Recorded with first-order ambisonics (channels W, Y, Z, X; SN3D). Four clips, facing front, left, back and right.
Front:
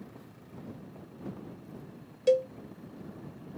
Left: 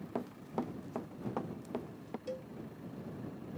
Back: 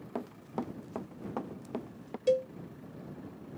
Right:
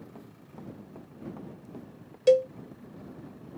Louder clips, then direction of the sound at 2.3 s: Right 24 dB, front 3 dB; 80° right.